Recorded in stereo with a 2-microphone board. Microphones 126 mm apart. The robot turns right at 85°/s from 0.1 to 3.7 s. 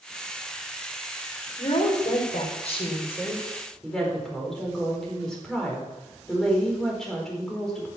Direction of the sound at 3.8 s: 5° left (ahead or behind).